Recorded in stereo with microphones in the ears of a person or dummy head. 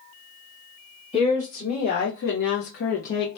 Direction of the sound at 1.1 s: 35° left (ahead or behind).